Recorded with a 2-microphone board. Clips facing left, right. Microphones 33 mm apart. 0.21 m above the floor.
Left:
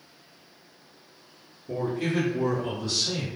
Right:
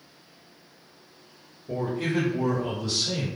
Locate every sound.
1.7 s a man speaking: 10° right (ahead or behind), 1.8 m; by 3.3 s 5° left (ahead or behind), 1.3 m